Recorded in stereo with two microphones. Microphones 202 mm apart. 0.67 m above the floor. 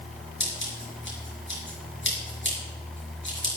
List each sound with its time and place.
0.4 s scissors: 70° left (ahead or behind), 4.5 m